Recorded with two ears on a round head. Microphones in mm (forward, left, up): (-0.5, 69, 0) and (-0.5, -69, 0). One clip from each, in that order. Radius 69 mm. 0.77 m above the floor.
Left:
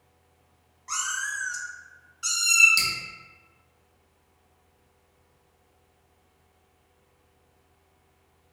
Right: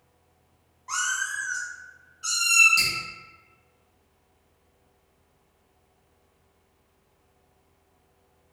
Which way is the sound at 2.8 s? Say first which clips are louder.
Right 1 dB; 30° left (ahead or behind).